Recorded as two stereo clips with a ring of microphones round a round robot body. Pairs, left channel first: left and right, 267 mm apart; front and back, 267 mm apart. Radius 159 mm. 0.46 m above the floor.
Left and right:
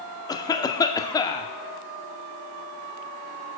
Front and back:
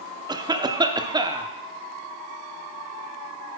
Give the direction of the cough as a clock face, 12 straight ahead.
7 o'clock.